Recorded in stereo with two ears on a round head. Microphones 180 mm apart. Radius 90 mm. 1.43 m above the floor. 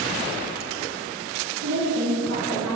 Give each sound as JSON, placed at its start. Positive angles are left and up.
{"t": 1.6, "sound": "a woman speaking", "side_deg": -60, "distance_m": 3.5}